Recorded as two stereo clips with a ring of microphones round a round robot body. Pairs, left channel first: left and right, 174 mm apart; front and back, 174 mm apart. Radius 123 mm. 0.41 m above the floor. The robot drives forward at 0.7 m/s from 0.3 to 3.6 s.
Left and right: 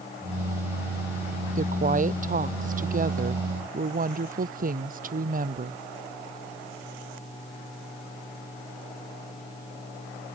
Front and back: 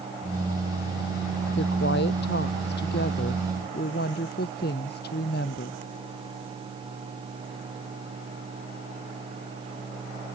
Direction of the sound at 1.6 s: 50° right.